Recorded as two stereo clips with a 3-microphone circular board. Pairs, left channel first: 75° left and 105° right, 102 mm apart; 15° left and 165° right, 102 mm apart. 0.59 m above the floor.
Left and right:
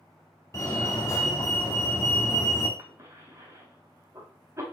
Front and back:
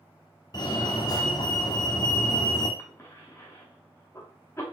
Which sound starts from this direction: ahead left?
A fire alarm, at 0.5 s.